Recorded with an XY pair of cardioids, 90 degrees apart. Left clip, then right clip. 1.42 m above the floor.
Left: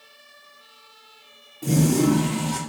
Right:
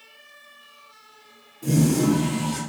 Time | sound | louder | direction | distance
1.6 | a toilet flushing | left 1 dB | 40° left | 0.8 m